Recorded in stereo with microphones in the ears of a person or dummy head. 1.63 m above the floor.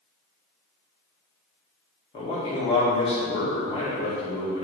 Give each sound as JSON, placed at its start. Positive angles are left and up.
{"t": 2.1, "sound": "a man speaking", "side_deg": 30, "distance_m": 2.0}